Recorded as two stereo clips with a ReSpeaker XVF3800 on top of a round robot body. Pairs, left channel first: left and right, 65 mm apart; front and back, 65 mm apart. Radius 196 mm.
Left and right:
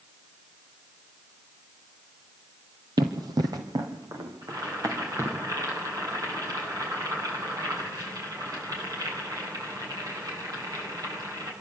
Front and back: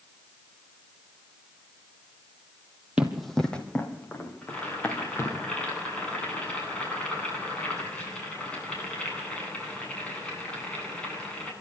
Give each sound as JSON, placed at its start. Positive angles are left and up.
{"t": 3.0, "sound": "running footsteps", "azimuth_deg": -105, "distance_m": 1.4}
{"t": 4.4, "sound": "boiling", "azimuth_deg": -75, "distance_m": 10.0}